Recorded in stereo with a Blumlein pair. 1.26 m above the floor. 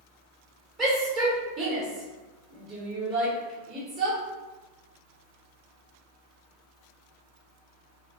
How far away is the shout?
About 1.2 m.